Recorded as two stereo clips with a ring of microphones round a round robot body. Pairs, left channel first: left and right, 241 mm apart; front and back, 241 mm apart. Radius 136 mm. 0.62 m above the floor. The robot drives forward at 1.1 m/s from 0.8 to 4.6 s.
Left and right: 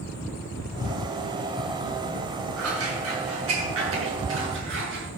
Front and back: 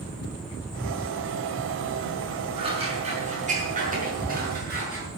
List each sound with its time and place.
2.6 s scissors: 110° right, 6.5 m; by 5.1 s 130° right, 7.5 m